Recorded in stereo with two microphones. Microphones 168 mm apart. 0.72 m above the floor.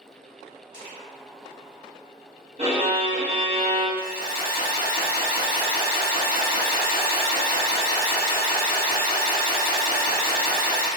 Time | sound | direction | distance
0.7 | crushing | 45° right (ahead or behind) | 1.6 m
2.6 | a violin | 40° right (ahead or behind) | 0.9 m
4.0 | an alarm | 30° right (ahead or behind) | 1.4 m